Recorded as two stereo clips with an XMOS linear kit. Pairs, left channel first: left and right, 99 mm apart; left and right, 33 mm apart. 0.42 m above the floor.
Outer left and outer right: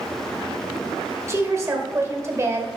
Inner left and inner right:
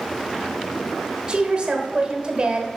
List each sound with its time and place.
1.3 s a woman speaking: 30° right (ahead or behind), 1.2 m